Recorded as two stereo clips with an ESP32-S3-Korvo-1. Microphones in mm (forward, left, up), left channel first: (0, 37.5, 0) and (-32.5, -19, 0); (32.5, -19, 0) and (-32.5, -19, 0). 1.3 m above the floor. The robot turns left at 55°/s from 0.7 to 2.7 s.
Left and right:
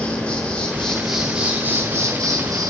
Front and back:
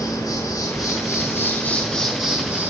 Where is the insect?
15° right, 5 m; by 2.7 s 125° right, 5 m.